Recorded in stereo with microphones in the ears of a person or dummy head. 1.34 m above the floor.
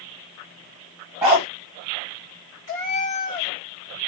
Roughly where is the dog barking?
Centre.